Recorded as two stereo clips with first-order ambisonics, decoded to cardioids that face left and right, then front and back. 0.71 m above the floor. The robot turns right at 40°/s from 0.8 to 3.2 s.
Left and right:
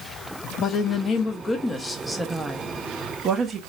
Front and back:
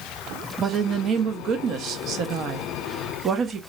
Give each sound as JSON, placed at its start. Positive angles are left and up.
{"t": 0.6, "sound": "a woman speaking", "azimuth_deg": 125, "distance_m": 0.5}